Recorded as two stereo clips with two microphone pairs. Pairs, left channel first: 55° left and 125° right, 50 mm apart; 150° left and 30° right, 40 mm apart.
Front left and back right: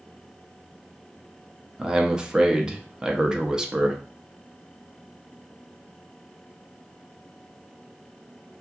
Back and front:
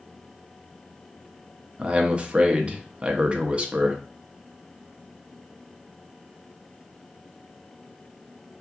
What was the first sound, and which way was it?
A man speaking, 65° right.